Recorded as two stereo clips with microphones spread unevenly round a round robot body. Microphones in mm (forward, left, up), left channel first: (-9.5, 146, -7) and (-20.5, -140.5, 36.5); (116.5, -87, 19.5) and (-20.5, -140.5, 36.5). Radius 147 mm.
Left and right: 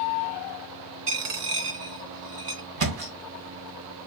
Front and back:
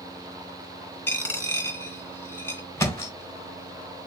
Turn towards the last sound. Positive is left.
turn(degrees=-55)